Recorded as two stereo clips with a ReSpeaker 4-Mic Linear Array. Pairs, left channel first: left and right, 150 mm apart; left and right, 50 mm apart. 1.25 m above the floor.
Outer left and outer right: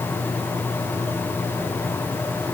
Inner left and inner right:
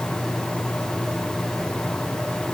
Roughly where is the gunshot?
I don't hear a gunshot.